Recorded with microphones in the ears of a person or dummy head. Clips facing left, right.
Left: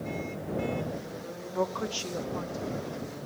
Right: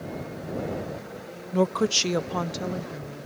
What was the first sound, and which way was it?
A woman speaking, 35° right (ahead or behind).